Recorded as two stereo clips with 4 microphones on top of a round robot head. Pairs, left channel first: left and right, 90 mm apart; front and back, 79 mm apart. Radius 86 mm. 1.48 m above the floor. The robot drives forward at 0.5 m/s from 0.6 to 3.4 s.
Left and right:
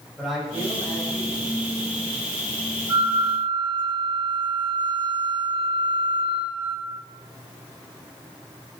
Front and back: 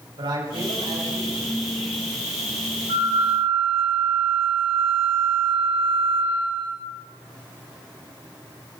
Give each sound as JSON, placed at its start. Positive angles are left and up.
{"t": 0.2, "sound": "a man speaking", "azimuth_deg": 180, "distance_m": 7.5}
{"t": 2.9, "sound": "a flute", "azimuth_deg": -150, "distance_m": 2.5}